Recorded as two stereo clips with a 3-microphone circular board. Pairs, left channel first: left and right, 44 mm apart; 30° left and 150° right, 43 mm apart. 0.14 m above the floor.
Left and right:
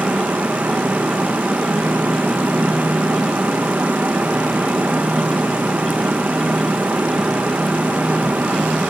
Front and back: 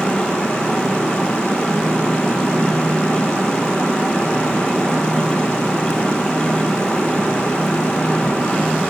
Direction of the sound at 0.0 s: 40° right.